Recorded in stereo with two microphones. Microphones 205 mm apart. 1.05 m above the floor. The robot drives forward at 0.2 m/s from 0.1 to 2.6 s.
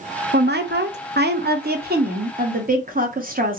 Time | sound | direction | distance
0.3 | a woman speaking | 55° right (ahead or behind) | 0.6 m